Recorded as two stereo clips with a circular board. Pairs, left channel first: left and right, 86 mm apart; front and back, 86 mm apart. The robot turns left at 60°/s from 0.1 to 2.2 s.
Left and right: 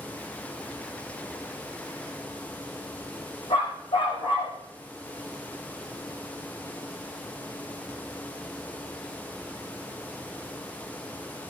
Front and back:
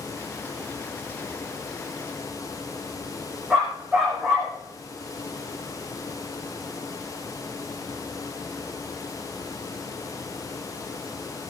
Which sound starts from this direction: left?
A dog barking, at 3.5 s.